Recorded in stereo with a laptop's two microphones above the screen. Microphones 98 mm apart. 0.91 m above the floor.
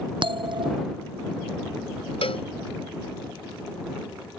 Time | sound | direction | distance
0.2 | a bell | 55° right (ahead or behind) | ?
2.2 | a cowbell | 75° left (ahead or behind) | ?